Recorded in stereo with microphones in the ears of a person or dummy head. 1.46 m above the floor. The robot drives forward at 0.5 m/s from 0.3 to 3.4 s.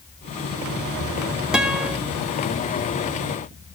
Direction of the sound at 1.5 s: 5° right (ahead or behind).